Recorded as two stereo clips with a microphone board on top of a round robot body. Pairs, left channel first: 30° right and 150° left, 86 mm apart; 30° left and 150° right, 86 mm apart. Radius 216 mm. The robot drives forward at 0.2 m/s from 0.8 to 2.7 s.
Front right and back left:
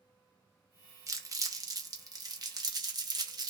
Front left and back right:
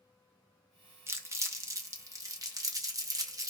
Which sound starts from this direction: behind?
Crumpling, at 1.1 s.